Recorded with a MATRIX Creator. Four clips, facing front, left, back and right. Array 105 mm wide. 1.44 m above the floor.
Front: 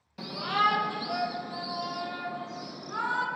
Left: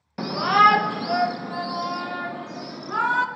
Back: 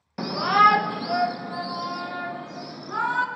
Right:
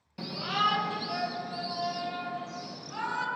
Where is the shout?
135° left, 1.0 m; by 3.2 s 110° left, 3 m.